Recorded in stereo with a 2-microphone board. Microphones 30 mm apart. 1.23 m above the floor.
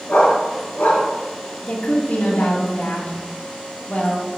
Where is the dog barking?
75° left (ahead or behind), 4 m.